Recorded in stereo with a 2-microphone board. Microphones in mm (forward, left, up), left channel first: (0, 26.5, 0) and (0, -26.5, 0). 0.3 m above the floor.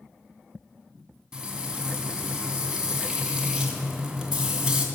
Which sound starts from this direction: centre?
Frying, at 1.3 s.